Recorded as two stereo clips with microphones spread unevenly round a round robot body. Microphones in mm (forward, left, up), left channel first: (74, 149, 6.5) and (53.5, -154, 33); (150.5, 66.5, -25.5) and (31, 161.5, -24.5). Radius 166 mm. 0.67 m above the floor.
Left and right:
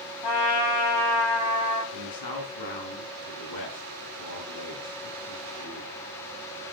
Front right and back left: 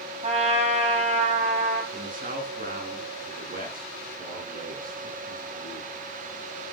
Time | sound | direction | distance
0.2 | a trumpet | 95° left | 7.5 m
1.9 | a man speaking | 115° left | 6 m